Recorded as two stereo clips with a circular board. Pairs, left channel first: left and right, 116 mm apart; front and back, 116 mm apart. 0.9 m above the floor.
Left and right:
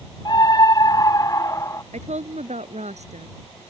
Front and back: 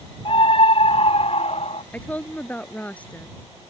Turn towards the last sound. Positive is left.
turn(degrees=-80)